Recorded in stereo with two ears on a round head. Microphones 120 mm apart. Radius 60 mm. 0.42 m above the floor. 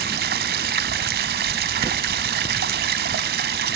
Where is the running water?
80° right, 1.1 m.